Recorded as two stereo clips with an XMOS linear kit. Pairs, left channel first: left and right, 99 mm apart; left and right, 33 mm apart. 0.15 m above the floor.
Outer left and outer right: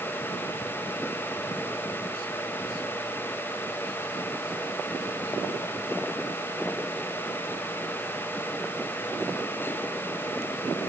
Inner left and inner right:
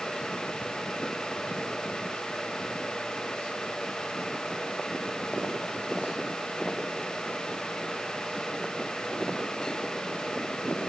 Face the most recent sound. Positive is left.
No sound to turn to.